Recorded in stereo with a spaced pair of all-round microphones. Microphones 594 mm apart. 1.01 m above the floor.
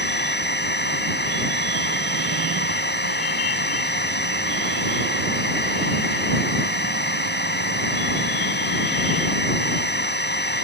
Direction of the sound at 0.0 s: 15° left (ahead or behind).